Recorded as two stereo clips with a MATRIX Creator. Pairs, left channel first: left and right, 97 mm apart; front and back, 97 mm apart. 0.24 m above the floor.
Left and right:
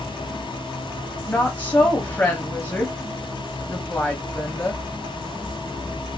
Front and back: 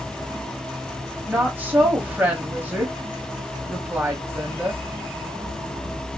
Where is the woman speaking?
135° left, 1.0 m.